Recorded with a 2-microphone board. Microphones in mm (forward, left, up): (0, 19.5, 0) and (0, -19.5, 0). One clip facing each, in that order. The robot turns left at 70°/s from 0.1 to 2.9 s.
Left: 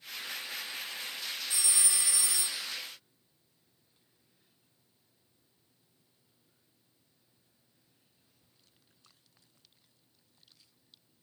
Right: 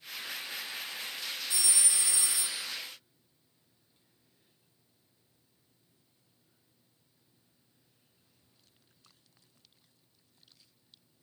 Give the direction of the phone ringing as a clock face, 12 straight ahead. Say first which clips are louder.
Even; 10 o'clock.